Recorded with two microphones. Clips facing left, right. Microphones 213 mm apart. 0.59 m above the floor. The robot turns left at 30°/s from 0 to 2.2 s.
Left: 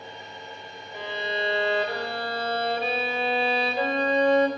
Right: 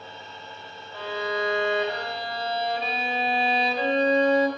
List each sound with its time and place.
0.9 s a violin: 165° left, 2 m; by 4.5 s 125° left, 2 m